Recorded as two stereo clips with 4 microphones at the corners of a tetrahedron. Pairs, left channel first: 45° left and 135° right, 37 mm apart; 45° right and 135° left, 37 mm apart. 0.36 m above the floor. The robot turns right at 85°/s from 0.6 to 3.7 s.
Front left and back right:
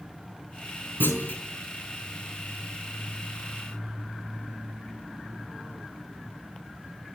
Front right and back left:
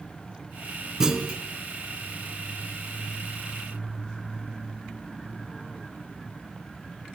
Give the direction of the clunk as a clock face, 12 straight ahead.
10 o'clock.